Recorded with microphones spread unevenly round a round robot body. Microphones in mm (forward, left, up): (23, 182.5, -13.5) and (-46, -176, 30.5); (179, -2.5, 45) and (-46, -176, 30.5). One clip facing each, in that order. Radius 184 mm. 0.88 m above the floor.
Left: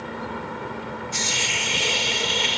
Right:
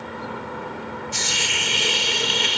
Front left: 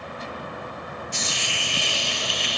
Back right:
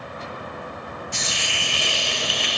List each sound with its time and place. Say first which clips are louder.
1.1 s a hiss: even, even; 175° right